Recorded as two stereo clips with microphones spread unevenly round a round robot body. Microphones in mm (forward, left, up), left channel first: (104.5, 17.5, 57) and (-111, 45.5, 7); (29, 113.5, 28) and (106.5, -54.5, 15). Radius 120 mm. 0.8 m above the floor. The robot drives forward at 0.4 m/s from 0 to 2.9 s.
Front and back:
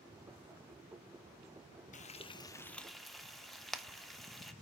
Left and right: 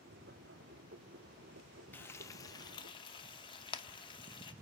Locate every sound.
1.9 s frying: 40° left, 0.7 m; by 4.5 s 120° left, 0.7 m